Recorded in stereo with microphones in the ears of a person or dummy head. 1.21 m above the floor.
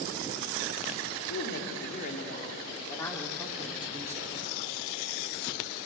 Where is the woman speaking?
60° left (ahead or behind), 3 m; by 4.4 s 20° right (ahead or behind), 3.5 m.